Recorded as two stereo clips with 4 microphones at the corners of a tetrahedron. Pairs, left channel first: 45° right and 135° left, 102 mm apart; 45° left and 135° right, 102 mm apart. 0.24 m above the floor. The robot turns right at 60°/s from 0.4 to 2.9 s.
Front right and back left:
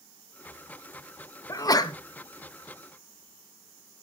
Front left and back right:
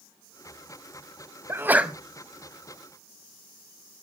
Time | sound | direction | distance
1.5 | a sneeze | 85° right | 1.5 m